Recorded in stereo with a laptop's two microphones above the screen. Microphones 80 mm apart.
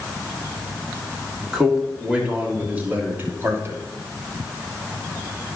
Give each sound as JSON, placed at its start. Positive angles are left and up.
{"t": 1.5, "sound": "a man speaking", "side_deg": -10, "distance_m": 3.0}